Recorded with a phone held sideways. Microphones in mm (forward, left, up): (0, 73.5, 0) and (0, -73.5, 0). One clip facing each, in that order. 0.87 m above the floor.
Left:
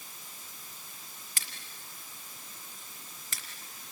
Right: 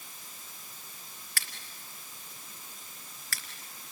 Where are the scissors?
20° left (ahead or behind), 2.5 m.